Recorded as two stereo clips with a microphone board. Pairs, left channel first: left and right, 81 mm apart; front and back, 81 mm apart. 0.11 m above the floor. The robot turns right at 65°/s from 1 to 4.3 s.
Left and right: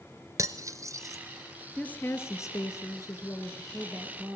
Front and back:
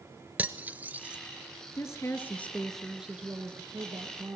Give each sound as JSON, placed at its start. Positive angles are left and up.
{"t": 0.4, "sound": "cutlery clinking", "azimuth_deg": -115, "distance_m": 1.0}
{"t": 1.8, "sound": "a woman speaking", "azimuth_deg": 20, "distance_m": 2.0}